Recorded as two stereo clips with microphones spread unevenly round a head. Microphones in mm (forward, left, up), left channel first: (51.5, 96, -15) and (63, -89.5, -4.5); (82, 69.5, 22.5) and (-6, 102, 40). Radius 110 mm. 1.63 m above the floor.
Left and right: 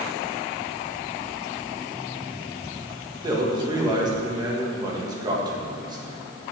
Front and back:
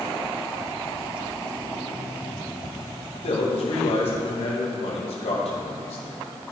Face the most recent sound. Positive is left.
turn(degrees=-20)